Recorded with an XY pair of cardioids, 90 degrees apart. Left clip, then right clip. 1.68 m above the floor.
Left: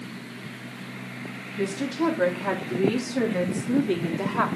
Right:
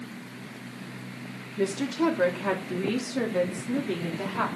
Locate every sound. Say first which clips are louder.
1.6 s a woman speaking: even; 25° right, 3.5 m; by 4.5 s 35° left, 3.5 m